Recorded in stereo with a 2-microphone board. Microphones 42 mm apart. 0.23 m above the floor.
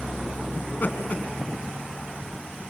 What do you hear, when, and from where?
0.6 s laughter: 45° left (ahead or behind), 2.5 m